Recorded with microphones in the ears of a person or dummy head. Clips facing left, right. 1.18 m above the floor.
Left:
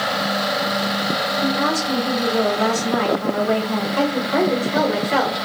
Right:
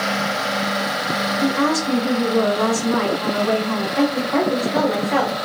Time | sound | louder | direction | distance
1.4 | a woman speaking | right 3 dB | 80° right | 2 m
4.0 | a woman speaking | right 1 dB | 5° right (ahead or behind) | 0.7 m